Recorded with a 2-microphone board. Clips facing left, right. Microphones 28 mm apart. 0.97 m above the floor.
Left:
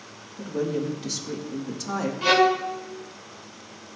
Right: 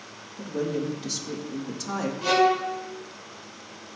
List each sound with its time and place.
0.4 s a woman speaking: centre (ahead or behind), 1.6 m
2.2 s a violin: 40° left (ahead or behind), 1.2 m